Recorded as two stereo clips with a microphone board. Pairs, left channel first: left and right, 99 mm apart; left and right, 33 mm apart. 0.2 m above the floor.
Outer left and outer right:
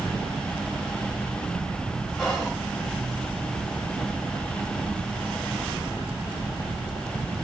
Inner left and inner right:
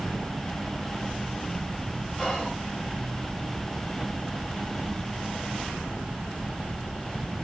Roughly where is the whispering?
Centre.